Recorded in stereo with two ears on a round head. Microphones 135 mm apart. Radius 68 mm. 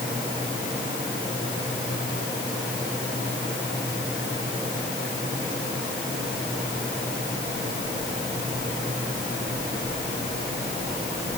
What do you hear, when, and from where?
Only background noise.